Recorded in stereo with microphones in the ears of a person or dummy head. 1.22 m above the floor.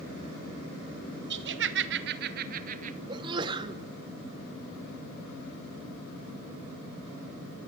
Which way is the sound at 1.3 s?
55° right (ahead or behind).